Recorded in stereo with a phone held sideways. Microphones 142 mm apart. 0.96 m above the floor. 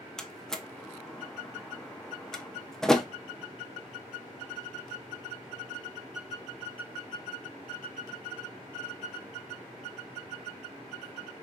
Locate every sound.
0.2 s a door slam: 5° left (ahead or behind), 0.7 m